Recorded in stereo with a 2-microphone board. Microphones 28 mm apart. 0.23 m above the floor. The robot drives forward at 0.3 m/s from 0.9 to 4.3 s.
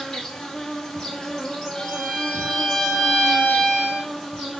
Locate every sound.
0.0 s an insect: 25° left (ahead or behind), 1.4 m; by 4.6 s 15° left (ahead or behind), 2.5 m
1.8 s a violin: 45° left (ahead or behind), 1.4 m; by 4.1 s 30° left (ahead or behind), 2.0 m